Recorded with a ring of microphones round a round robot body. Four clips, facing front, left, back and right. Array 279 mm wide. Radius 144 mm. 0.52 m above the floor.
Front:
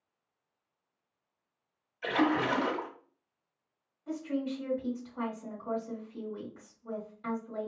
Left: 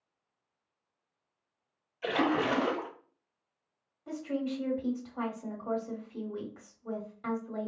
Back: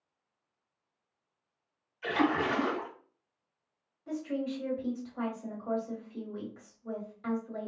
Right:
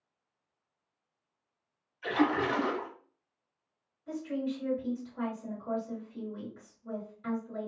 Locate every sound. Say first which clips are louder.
2.0 s a splash: even, front 1 dB; 60° left, 1.0 m
4.1 s a woman speaking: even, even; 95° left, 1.7 m